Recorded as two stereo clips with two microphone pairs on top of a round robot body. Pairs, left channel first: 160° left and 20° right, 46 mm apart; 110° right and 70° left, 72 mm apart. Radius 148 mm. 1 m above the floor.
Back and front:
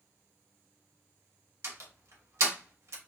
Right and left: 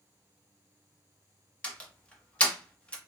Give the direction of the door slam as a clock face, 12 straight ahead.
1 o'clock.